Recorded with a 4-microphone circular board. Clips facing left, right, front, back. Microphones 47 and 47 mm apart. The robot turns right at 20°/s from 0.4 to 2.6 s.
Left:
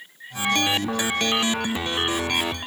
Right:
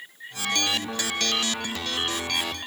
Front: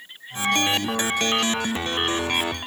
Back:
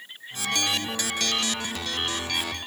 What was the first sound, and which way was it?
Only background noise.